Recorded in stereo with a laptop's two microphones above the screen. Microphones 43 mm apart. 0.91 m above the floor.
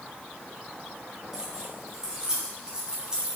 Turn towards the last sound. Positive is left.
turn(degrees=-20)  # may be behind; listen again after turning